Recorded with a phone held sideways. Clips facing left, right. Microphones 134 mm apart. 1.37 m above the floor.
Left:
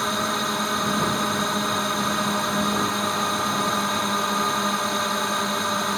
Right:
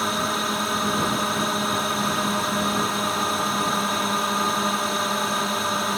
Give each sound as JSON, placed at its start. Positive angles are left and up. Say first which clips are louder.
{"t": 0.0, "sound": "a drone", "louder": "even", "side_deg": 0}